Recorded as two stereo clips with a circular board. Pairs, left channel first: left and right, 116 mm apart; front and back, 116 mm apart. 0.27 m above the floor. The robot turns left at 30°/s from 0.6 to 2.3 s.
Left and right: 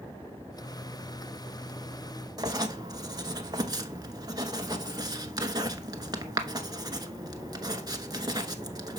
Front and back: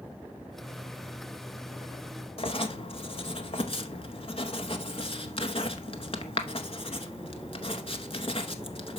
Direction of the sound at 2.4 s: 35° right.